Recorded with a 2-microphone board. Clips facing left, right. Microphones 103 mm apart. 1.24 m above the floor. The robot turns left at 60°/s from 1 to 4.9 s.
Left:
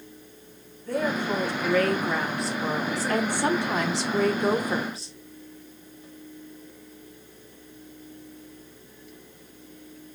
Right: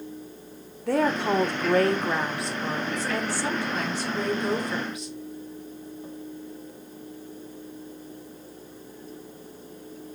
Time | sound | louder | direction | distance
0.9 | a woman speaking | right 4 dB | 95° right | 0.9 m